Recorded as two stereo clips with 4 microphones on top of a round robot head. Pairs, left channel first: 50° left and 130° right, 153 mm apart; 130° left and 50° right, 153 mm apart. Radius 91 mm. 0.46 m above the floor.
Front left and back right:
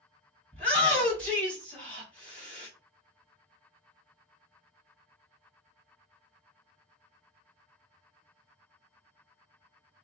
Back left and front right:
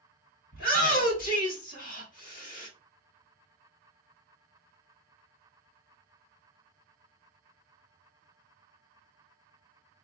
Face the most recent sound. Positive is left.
turn(degrees=130)